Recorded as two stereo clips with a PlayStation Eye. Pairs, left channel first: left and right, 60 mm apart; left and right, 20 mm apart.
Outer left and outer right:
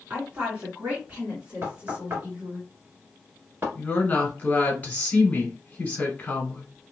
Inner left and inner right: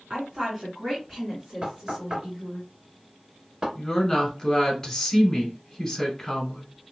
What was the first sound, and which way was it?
A woman speaking, 25° right (ahead or behind).